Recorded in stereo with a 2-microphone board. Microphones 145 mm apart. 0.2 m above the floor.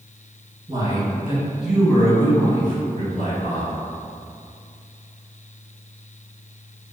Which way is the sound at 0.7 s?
30° right (ahead or behind).